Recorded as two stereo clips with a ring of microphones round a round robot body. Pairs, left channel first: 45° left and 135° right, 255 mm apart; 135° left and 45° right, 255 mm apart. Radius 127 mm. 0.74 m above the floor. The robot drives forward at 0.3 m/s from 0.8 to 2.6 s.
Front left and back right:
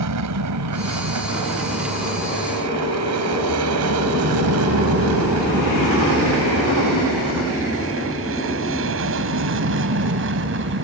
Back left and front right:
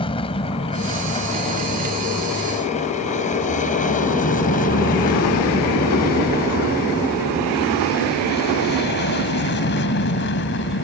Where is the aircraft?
155° right; by 10.8 s straight behind.